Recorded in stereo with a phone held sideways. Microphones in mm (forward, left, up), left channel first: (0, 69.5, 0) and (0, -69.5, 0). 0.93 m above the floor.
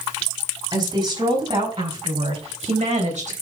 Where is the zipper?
I don't hear a zipper.